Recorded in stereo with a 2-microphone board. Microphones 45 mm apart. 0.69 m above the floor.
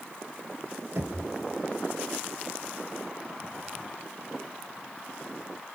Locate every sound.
0.9 s knocking: 80° right, 2.5 m